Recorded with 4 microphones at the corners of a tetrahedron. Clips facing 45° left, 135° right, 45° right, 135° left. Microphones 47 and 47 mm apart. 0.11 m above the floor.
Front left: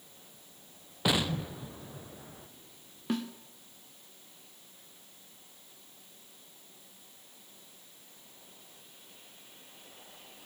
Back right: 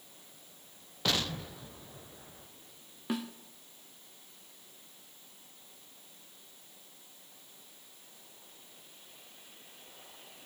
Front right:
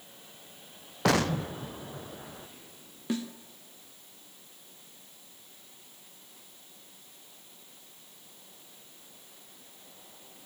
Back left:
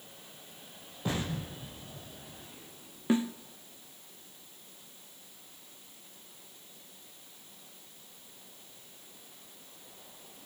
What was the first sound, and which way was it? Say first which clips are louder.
An explosion: front left 3 dB, front right 9 dB; 30° right.